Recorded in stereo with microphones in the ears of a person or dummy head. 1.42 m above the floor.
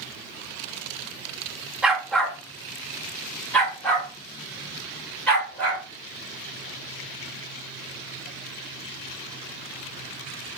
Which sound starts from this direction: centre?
A dog barking, at 1.8 s.